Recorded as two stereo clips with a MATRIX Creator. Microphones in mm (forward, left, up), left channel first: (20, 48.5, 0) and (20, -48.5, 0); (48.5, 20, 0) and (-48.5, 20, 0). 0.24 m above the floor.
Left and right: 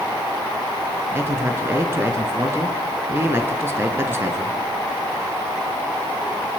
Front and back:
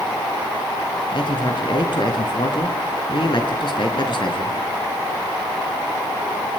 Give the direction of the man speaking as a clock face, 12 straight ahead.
1 o'clock.